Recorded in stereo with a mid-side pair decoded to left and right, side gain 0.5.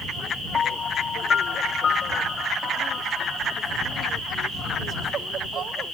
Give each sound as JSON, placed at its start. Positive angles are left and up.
{"t": 0.5, "sound": "a piano", "azimuth_deg": 45}